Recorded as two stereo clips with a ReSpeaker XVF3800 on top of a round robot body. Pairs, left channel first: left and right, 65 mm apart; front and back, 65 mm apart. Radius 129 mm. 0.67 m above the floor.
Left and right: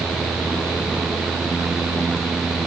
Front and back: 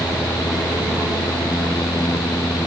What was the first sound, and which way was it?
Only background noise.